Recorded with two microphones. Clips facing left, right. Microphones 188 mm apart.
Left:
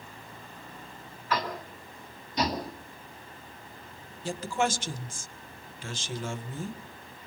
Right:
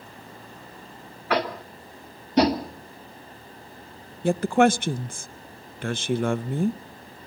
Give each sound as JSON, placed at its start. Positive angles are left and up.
{"t": 1.3, "sound": "tapping", "side_deg": -65, "distance_m": 2.0}
{"t": 4.2, "sound": "a woman speaking", "side_deg": -60, "distance_m": 0.7}